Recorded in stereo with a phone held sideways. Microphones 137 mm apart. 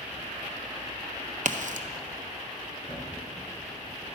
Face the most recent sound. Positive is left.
turn(degrees=35)  # may be behind; listen again after turning